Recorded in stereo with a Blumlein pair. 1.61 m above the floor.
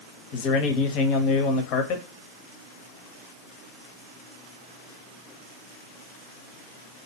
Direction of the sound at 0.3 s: 35° left.